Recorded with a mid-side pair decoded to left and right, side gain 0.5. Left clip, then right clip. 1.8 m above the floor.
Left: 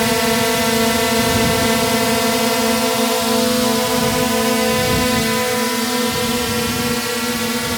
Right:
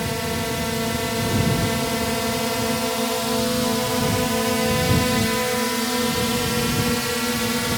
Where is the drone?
60° left; by 7.8 s 20° left.